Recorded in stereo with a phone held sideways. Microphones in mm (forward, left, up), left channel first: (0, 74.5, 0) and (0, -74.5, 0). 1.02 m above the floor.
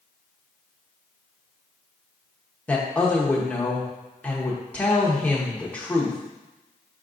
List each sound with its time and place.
2.7 s a woman speaking: 10° left (ahead or behind), 0.7 m